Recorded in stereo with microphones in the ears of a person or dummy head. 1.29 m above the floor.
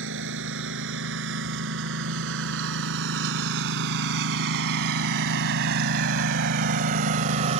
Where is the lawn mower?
80° right; by 7.6 s 40° right (ahead or behind).